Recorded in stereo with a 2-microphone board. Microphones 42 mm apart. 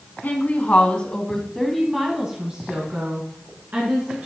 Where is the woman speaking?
45° left (ahead or behind), 1.6 m; by 4.3 s 50° right (ahead or behind), 2.5 m.